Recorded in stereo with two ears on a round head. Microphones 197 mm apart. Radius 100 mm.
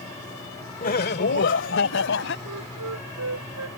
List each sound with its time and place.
0.8 s laughter: 40° left (ahead or behind); by 2.4 s 60° left (ahead or behind)
2.5 s a flute: 80° right